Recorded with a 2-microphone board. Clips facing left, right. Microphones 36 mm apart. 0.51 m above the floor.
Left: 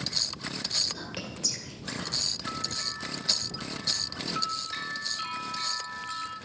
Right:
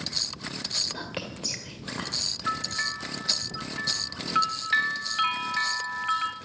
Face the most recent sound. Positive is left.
turn(degrees=-65)  # may be behind; listen again after turning